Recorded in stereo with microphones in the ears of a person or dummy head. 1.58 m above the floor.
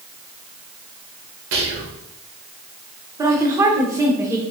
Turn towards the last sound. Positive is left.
turn(degrees=-25)  # may be behind; listen again after turning